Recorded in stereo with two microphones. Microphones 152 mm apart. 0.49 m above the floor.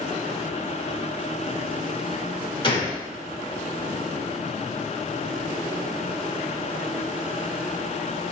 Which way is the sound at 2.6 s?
35° left (ahead or behind).